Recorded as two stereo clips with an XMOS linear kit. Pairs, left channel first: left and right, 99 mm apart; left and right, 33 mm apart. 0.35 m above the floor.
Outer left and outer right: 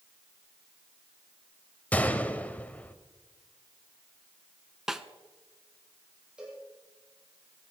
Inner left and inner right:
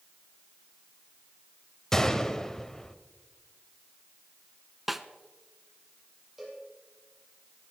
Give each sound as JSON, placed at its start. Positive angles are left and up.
{"t": 1.9, "sound": "a gunshot", "side_deg": 15, "distance_m": 1.0}
{"t": 4.9, "sound": "a snare drum", "side_deg": -5, "distance_m": 0.7}
{"t": 6.4, "sound": "a cowbell", "side_deg": -10, "distance_m": 6.0}